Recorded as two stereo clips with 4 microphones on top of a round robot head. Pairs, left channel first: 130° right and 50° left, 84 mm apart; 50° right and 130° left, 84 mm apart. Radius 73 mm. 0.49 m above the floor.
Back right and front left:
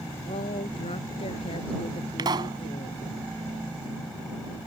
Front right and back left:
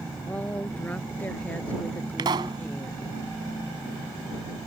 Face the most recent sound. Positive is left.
turn(degrees=90)